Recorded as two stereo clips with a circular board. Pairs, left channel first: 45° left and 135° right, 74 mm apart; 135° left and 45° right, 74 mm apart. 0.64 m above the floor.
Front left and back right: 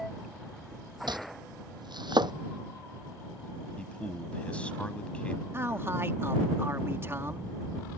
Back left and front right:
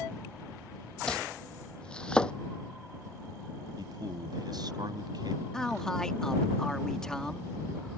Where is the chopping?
150° right.